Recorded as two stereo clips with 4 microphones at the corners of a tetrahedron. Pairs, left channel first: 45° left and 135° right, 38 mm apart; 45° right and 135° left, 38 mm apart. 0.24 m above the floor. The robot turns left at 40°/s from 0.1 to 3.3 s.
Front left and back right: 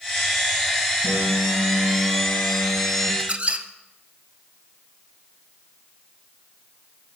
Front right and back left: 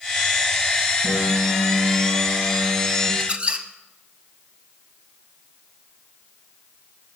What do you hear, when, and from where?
1.0 s a piano: 155° right, 5 m; by 3.1 s 120° left, 5 m
3.2 s a squeak: 175° right, 0.7 m; by 3.7 s straight behind, 0.7 m